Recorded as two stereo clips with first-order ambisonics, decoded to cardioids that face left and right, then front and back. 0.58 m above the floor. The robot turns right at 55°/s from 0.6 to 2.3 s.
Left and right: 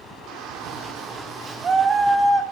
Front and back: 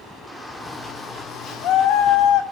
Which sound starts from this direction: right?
A shout, at 0.3 s.